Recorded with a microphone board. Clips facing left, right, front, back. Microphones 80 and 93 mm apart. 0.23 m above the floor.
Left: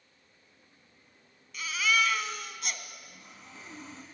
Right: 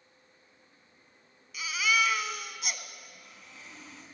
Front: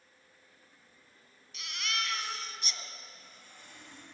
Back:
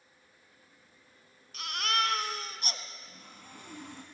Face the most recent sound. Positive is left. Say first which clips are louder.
# left 1 dB, back 4 dB
turn(degrees=155)